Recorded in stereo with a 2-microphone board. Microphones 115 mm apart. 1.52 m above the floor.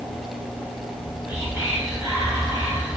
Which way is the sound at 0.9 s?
25° right (ahead or behind).